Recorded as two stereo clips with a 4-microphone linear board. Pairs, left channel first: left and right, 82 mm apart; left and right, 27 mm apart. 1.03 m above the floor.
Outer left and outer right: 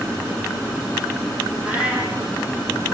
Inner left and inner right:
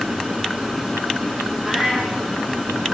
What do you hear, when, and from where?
1.6 s a cat meowing: 15° right (ahead or behind), 7 m